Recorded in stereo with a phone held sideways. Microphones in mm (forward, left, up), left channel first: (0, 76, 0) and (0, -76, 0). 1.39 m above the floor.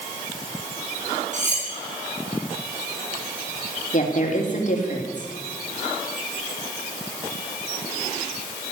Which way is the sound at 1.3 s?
50° right (ahead or behind).